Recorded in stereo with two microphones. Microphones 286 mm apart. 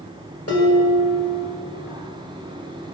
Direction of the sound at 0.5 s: 55° left (ahead or behind).